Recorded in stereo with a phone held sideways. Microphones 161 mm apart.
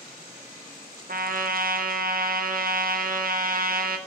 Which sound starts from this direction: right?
A trumpet, at 1.1 s.